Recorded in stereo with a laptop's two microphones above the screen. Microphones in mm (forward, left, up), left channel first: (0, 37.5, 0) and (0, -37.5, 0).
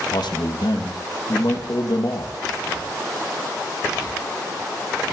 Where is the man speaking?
70° left (ahead or behind), 1.3 m.